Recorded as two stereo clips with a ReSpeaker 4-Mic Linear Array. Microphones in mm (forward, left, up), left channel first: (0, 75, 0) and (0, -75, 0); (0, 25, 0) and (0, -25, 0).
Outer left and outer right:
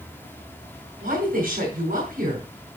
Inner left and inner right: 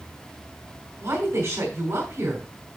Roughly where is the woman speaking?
Right.